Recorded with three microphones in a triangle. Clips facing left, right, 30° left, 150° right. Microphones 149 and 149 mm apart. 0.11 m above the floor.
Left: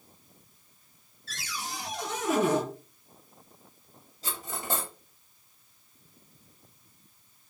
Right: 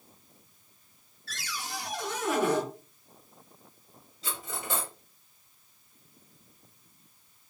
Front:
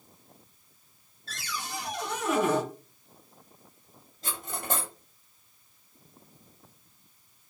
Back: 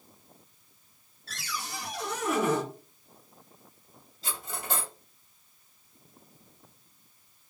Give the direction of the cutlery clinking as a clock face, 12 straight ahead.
10 o'clock.